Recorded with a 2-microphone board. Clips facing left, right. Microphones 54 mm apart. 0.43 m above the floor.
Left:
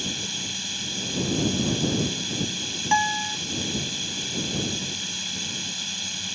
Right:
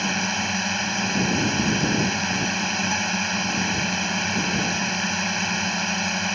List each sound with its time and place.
0.0 s a drone: 55° right (ahead or behind)
2.9 s a guitar: 40° left (ahead or behind)